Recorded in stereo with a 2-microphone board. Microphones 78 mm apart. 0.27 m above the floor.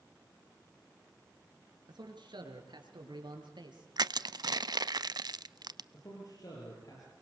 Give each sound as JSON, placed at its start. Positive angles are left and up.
{"t": 1.9, "sound": "a man speaking", "side_deg": -75, "distance_m": 4.0}
{"t": 4.0, "sound": "crushing", "side_deg": -65, "distance_m": 0.6}
{"t": 5.9, "sound": "a man speaking", "side_deg": 55, "distance_m": 7.0}